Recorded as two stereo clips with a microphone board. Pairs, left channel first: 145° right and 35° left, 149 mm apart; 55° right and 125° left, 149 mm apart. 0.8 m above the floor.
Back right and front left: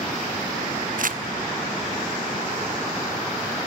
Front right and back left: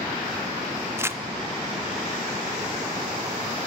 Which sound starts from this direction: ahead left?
Crumpling, at 1.0 s.